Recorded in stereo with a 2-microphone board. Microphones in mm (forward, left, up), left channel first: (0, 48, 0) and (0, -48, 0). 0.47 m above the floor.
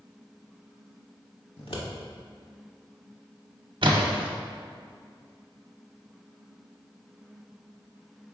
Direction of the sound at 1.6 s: 85° left.